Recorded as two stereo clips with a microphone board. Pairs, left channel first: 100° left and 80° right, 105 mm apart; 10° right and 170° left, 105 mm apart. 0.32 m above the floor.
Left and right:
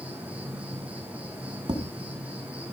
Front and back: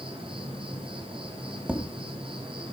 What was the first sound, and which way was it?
An insect, 155° right.